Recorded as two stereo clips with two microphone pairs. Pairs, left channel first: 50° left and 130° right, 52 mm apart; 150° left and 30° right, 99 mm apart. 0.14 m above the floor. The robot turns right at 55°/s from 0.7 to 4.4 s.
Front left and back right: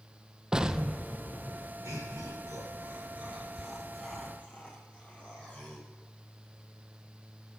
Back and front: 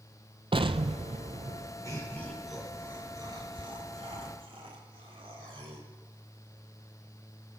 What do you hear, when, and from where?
0.5 s an explosion: 60° right, 0.6 m; by 1.7 s 5° right, 0.6 m
1.8 s laughter: 155° right, 4.5 m; by 5.9 s 15° right, 4.5 m